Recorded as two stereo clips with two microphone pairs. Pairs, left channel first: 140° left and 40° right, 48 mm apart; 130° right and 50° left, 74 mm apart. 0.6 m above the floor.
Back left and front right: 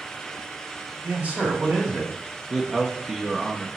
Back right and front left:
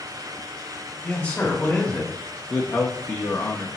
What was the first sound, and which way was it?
A man speaking, 70° right.